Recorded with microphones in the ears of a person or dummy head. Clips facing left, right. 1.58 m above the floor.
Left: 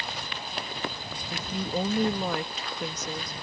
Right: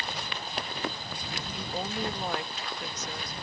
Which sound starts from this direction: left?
A woman speaking, at 1.3 s.